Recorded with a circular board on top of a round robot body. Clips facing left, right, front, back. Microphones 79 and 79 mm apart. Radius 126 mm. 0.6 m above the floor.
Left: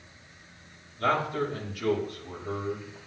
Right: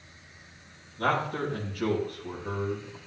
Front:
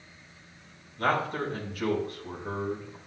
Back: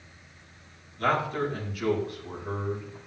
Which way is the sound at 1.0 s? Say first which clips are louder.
Left 1 dB, back 1 dB; 50° right.